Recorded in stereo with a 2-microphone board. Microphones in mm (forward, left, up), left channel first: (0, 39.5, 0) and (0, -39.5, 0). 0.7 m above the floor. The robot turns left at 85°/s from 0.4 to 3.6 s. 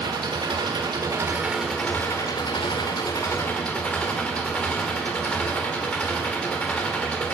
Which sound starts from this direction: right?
An engine running, at 0.0 s.